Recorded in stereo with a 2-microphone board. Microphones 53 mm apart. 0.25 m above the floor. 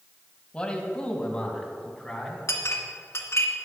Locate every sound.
0.5 s a man speaking: 20° left (ahead or behind), 1.7 m; by 2.4 s 15° left (ahead or behind), 2.5 m
2.5 s a clink: 55° left (ahead or behind), 1.7 m